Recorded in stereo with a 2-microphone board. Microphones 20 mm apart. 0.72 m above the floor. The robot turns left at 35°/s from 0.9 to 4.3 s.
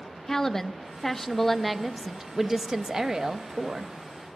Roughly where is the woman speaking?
Ahead left.